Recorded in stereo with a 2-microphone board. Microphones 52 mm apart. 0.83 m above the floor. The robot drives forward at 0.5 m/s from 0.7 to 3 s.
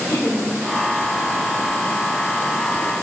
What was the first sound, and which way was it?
Laughter, 75° left (ahead or behind).